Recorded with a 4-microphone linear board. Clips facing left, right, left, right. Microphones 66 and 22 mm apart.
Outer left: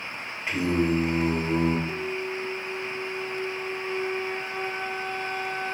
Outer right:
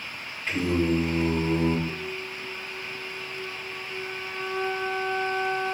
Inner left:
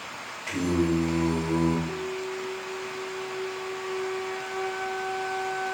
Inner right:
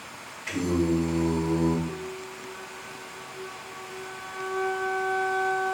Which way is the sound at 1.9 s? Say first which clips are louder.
Outer left 4 dB, inner left 4 dB; 35° left (ahead or behind).